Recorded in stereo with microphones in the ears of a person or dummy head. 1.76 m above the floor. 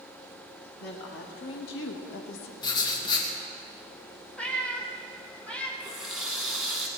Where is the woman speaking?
55° left (ahead or behind), 2 m; by 2.5 s 60° left (ahead or behind), 1.7 m.